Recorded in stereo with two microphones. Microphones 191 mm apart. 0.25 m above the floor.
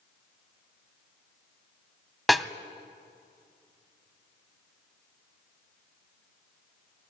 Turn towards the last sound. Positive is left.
turn(degrees=0)  # may be behind; listen again after turning